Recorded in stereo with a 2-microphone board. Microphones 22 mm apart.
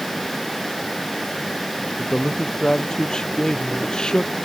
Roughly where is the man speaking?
Left.